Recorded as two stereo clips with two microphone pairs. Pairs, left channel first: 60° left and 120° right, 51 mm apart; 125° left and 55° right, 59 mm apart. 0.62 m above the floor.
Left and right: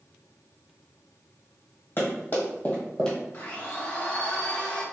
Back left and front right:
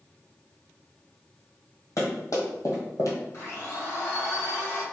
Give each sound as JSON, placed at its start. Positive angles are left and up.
{"t": 2.0, "sound": "running footsteps", "azimuth_deg": 100, "distance_m": 1.7}
{"t": 3.3, "sound": "a blender", "azimuth_deg": 105, "distance_m": 1.9}